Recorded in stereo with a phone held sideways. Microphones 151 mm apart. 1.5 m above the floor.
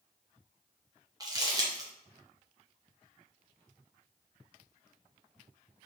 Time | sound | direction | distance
1.2 | crumpling | 25° right (ahead or behind) | 1.1 m